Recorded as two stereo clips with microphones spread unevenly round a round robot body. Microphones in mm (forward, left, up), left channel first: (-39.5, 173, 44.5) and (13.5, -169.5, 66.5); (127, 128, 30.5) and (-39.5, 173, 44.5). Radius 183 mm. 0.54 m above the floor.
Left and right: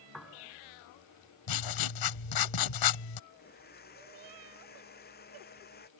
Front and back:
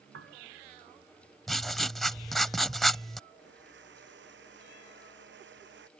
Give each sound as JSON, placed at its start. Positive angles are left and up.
{"t": 0.1, "sound": "a piano", "azimuth_deg": -170}
{"t": 1.5, "sound": "writing", "azimuth_deg": 75}
{"t": 3.3, "sound": "a blender", "azimuth_deg": 165}